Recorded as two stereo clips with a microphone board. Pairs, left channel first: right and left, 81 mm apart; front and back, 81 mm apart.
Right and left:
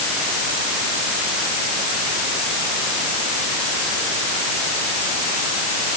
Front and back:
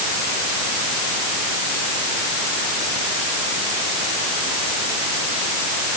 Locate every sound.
Only background noise.